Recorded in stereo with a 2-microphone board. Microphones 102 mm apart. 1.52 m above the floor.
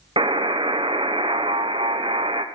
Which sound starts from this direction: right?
A buzzer, at 0.2 s.